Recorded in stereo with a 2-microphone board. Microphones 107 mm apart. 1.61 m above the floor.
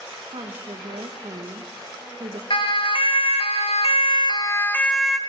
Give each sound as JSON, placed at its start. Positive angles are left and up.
{"t": 0.3, "sound": "a woman speaking", "side_deg": -70, "distance_m": 2.5}
{"t": 2.5, "sound": "a siren", "side_deg": 55, "distance_m": 3.0}